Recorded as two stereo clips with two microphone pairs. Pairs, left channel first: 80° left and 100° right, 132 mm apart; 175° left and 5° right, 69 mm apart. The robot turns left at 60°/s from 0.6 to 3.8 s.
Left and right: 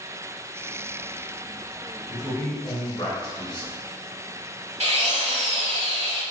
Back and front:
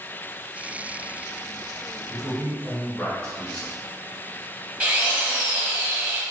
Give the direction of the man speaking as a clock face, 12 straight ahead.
6 o'clock.